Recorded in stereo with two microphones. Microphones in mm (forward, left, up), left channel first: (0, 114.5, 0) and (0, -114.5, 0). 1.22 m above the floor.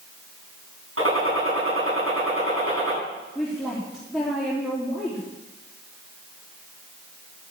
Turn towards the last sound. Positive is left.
turn(degrees=0)  # may be behind; listen again after turning